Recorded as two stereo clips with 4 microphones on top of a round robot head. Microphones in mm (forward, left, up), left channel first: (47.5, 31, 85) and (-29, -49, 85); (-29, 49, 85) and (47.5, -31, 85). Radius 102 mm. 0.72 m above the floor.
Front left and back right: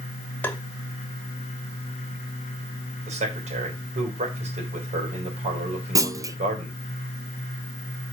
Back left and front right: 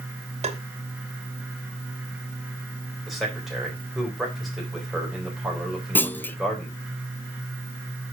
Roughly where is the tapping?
Ahead right.